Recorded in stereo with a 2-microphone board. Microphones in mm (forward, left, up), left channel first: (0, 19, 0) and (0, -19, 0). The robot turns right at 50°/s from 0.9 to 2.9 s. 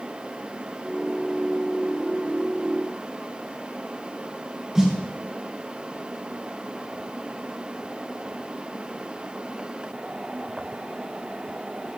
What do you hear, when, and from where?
4.8 s a snare drum: 15° right (ahead or behind), 2.0 m